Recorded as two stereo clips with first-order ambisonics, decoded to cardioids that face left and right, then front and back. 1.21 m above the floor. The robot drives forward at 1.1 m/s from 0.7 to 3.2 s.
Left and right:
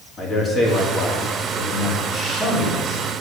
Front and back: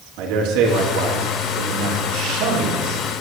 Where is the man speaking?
150° left, 2.5 m; by 3.0 s 165° left, 5 m.